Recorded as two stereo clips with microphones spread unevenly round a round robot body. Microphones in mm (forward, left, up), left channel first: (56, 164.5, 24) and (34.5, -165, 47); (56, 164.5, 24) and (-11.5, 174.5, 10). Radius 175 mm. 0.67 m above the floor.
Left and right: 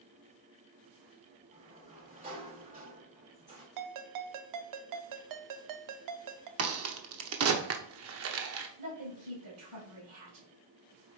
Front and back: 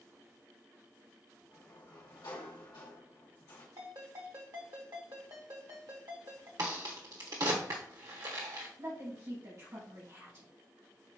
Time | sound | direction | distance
1.5 | a sliding door | 30° right | 3 m
3.8 | a ringtone | 130° right | 0.6 m
6.6 | a crack | 145° right | 0.9 m
8.8 | a woman speaking | 140° right | 4 m